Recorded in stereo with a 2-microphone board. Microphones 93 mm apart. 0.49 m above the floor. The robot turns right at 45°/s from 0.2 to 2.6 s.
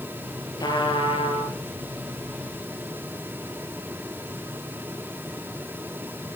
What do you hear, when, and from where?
0.6 s a trumpet: 45° left, 4 m; by 1.5 s 90° left, 4 m